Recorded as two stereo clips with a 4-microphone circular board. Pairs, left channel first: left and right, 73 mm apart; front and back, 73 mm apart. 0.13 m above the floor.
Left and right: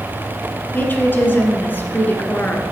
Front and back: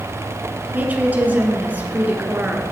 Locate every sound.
0.7 s a woman speaking: 130° left, 1.7 m